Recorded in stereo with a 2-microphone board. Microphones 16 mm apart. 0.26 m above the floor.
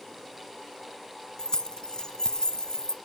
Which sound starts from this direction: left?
Keys jangling, at 1.4 s.